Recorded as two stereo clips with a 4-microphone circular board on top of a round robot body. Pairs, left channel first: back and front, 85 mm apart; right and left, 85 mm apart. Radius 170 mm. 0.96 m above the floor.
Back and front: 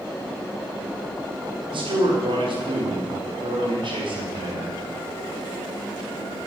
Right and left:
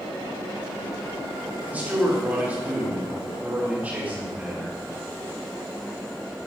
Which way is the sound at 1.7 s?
15° left.